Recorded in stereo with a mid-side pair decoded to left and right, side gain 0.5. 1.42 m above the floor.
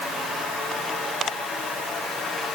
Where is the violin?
I don't hear a violin.